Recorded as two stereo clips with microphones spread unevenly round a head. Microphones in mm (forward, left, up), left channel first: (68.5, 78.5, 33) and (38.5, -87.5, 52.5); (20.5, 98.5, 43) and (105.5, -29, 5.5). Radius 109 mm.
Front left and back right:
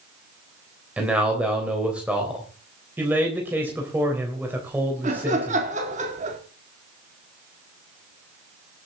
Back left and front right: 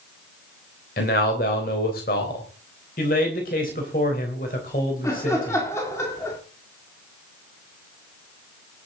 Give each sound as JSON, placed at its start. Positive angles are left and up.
{"t": 1.0, "sound": "a man speaking", "azimuth_deg": 175, "distance_m": 3.5}
{"t": 3.0, "sound": "a man speaking", "azimuth_deg": 175, "distance_m": 3.5}
{"t": 5.0, "sound": "laughter", "azimuth_deg": -155, "distance_m": 2.0}